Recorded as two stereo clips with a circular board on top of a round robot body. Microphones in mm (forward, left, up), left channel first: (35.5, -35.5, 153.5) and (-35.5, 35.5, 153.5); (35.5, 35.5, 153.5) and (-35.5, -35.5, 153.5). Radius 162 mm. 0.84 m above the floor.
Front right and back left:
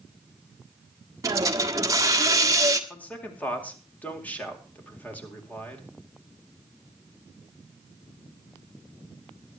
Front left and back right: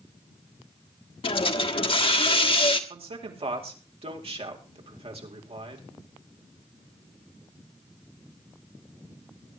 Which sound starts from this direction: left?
A hiss, at 1.2 s.